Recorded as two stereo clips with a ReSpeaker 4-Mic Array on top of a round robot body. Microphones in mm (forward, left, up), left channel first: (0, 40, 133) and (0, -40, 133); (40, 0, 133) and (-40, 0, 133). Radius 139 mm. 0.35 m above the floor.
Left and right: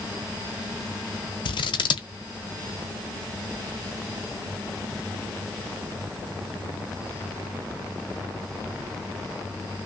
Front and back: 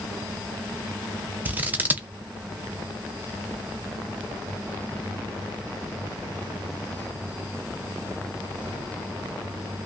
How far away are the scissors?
About 0.6 m.